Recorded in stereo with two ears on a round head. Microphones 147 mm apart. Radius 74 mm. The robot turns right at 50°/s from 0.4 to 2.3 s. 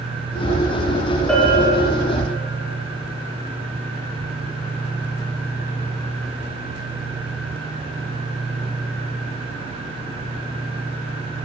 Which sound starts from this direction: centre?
A bell, at 1.3 s.